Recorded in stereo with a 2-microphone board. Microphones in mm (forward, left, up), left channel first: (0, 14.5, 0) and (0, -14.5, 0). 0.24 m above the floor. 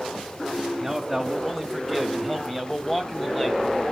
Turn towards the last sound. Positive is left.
turn(degrees=10)  # may be behind; listen again after turning